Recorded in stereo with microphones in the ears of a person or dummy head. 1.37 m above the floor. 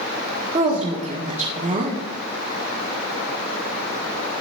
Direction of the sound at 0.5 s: 35° right (ahead or behind).